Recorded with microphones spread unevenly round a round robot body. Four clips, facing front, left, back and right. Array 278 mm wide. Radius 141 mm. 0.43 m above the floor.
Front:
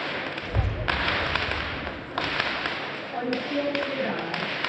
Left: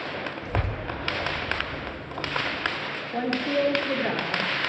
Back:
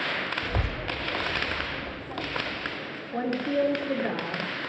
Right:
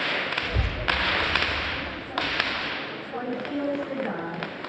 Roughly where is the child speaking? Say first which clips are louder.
Right 1 dB, front 2 dB; behind.